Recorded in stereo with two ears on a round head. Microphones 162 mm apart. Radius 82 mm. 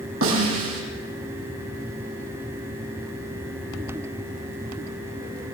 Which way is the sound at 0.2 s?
80° right.